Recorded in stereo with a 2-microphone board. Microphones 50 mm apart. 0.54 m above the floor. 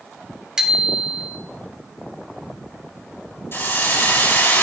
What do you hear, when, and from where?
0.6 s a bicycle bell: 15° right (ahead or behind), 2.5 m
3.5 s a hiss: 55° left (ahead or behind), 7 m